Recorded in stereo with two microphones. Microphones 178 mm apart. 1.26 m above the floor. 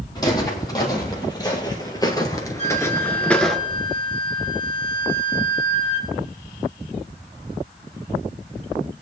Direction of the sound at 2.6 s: 35° left (ahead or behind).